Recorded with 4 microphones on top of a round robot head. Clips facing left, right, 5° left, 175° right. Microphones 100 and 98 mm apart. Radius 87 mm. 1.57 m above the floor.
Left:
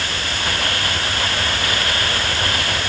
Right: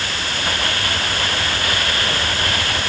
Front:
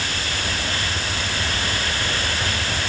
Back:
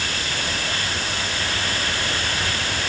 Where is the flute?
I don't hear a flute.